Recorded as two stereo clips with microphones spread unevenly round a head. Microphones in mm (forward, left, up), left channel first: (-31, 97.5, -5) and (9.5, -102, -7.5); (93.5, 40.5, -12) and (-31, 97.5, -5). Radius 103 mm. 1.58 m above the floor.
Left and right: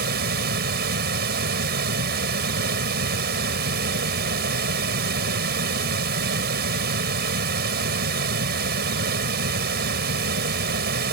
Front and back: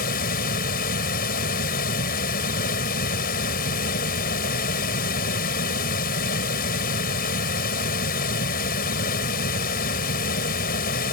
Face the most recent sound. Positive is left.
turn(degrees=-35)